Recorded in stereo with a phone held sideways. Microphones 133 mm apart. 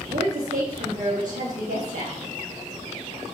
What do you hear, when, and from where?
0.1 s a woman speaking: 90° right, 3 m